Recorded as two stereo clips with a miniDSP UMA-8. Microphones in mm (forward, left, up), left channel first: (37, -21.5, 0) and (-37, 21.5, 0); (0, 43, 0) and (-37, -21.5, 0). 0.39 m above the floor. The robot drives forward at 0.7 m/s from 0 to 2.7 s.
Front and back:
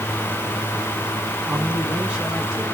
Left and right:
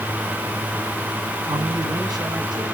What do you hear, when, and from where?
1.5 s a man speaking: 120° right, 3.5 m; by 2.6 s 130° right, 4 m